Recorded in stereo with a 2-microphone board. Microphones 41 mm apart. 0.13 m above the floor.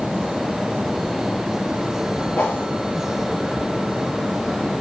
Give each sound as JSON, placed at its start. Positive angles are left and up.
{"t": 2.4, "sound": "a whoosh", "side_deg": 55, "distance_m": 8.5}